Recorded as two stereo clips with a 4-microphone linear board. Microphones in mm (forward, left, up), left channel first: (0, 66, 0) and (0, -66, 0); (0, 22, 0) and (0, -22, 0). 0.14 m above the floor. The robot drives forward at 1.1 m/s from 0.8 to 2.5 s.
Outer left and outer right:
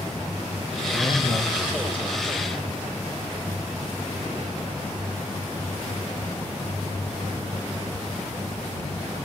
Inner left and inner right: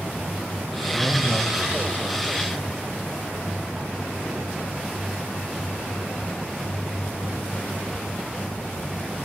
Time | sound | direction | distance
0.9 | a man speaking | 30° left (ahead or behind) | 3.5 m